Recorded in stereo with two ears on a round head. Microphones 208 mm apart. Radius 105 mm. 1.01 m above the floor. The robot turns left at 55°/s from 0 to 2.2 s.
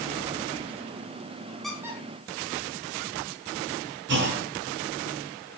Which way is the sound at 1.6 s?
Centre (ahead or behind).